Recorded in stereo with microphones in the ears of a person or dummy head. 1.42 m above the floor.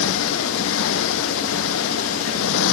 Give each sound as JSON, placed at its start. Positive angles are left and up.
{"t": 0.0, "sound": "a motorcycle", "side_deg": 75}